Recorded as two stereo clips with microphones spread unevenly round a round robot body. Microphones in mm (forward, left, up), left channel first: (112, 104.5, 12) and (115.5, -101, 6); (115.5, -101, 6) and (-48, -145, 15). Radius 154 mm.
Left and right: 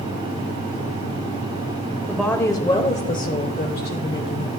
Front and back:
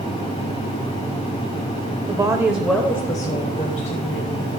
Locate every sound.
2.1 s a woman speaking: 170° right, 1.0 m; by 4.5 s 60° left, 2 m